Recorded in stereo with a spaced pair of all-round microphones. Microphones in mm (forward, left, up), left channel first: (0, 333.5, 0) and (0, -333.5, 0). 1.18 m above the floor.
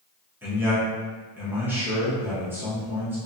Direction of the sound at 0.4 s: 5° right (ahead or behind).